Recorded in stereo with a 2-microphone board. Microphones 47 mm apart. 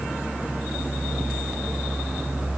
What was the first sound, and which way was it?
Only background noise.